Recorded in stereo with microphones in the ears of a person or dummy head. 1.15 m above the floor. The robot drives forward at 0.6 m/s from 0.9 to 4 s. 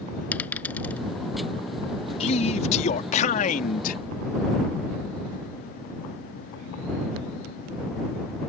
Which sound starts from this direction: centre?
A dropped coin, at 0.3 s.